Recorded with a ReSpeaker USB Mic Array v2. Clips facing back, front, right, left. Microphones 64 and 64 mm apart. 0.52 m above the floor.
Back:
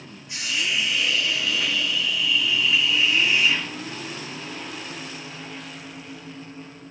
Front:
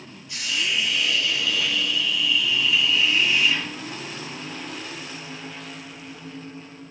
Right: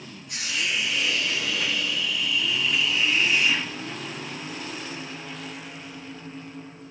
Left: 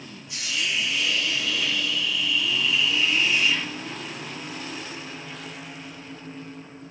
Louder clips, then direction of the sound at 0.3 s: Even, even; 110° right.